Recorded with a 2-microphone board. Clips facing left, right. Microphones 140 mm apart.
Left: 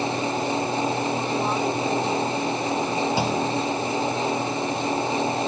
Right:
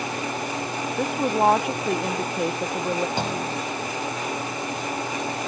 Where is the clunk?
10° left (ahead or behind).